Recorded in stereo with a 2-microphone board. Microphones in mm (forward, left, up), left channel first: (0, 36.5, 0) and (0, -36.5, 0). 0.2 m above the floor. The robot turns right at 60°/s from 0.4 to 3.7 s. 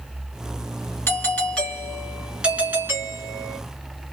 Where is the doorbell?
125° left, 1.9 m; by 3.6 s 80° right, 1.9 m.